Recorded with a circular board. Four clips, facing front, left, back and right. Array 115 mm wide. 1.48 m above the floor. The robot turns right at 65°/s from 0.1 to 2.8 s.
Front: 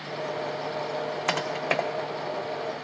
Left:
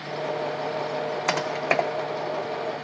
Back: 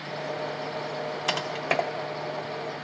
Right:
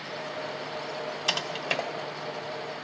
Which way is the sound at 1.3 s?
65° left.